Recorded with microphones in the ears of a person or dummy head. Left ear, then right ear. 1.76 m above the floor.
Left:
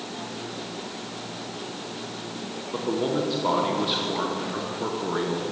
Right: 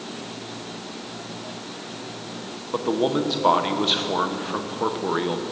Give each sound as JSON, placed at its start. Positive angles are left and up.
{"t": 2.7, "sound": "a man speaking", "side_deg": -25, "distance_m": 1.1}